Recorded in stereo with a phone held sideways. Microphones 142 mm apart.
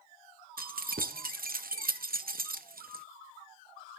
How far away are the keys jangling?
About 0.6 m.